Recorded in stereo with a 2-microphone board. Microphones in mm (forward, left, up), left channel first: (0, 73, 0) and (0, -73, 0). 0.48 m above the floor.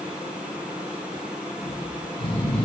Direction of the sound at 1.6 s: 35° left (ahead or behind).